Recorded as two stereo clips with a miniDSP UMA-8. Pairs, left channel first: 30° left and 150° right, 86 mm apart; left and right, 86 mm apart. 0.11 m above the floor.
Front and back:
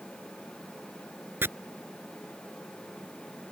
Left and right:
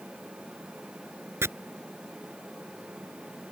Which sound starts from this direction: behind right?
Chopping, at 1.4 s.